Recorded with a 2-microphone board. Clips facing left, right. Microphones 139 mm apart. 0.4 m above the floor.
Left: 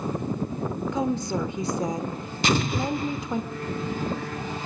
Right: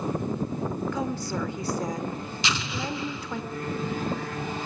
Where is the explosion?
50° left (ahead or behind), 0.6 m.